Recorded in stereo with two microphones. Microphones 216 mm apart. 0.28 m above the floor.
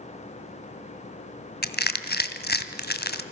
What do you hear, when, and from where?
1.6 s crushing: 50° left (ahead or behind), 1.9 m